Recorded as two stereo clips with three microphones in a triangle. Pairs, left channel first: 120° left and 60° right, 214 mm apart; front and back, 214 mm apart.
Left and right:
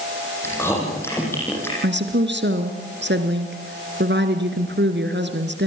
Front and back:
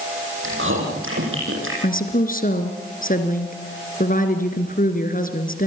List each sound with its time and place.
0.4 s chewing: 160° right, 8 m
1.8 s a woman speaking: 40° right, 2.5 m